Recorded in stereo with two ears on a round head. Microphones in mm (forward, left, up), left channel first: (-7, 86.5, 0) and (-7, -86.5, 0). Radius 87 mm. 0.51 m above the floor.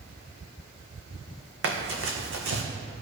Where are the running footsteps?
70° right (ahead or behind), 1.5 m.